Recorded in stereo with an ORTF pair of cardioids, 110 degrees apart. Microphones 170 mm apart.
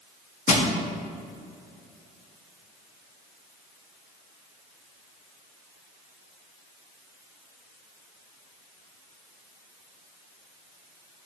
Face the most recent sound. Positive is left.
turn(degrees=45)